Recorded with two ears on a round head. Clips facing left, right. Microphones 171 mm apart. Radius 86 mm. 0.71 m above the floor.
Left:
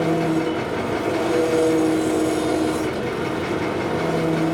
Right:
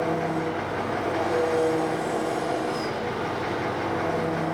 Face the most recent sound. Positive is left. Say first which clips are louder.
# left 6 dB
turn(degrees=40)  # may be behind; listen again after turning